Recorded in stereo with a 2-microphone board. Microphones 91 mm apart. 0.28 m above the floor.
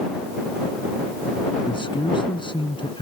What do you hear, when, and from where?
1.6 s a man speaking: 65° left (ahead or behind)